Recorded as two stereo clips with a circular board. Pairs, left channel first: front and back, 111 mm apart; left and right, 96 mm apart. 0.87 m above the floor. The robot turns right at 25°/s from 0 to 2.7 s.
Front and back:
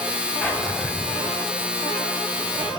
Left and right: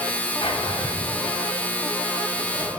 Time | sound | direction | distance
0.4 | a drawer | 75° left | 1.5 m